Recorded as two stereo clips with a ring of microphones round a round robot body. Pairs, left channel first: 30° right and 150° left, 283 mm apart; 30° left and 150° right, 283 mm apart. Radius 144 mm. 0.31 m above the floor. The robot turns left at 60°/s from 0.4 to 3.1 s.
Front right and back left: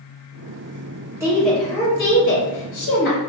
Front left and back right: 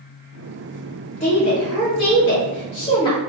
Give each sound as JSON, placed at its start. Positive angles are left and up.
{"t": 1.2, "sound": "a woman speaking", "azimuth_deg": 75, "distance_m": 1.2}